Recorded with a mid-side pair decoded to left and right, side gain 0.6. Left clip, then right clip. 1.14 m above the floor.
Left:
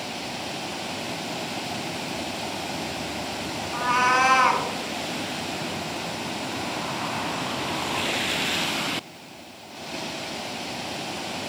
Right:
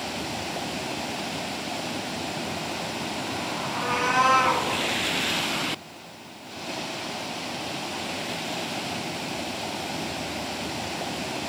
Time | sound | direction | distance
3.7 | a cat meowing | 50° left | 1.4 m